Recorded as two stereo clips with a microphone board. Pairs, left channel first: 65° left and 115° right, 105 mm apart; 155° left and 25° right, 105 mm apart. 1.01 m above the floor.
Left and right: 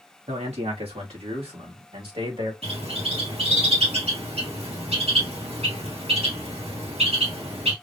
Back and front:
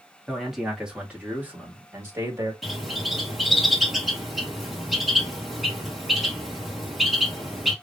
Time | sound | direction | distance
0.3 | a man speaking | 110° right | 2.5 m
2.6 | a bird | 110° right | 2.0 m